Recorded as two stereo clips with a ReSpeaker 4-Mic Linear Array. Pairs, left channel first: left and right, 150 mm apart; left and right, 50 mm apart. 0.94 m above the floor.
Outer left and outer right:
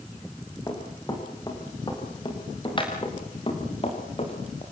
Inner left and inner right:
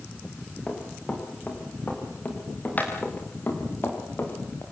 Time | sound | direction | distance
0.7 | running footsteps | 25° left (ahead or behind) | 8 m